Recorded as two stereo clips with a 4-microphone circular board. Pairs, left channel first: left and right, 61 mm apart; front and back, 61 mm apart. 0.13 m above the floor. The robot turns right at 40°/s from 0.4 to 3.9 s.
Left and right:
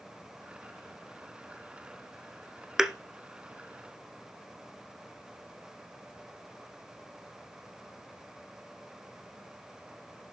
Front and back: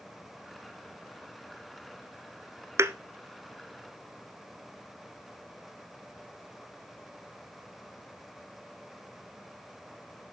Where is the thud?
170° right, 1.0 m; by 2.9 s 165° right, 1.0 m.